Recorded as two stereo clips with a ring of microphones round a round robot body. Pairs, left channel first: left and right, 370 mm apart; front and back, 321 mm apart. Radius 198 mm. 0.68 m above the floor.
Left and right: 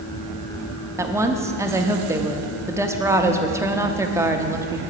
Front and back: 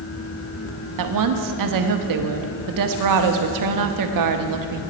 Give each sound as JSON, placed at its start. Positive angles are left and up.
{"t": 1.0, "sound": "a woman speaking", "azimuth_deg": -170, "distance_m": 1.0}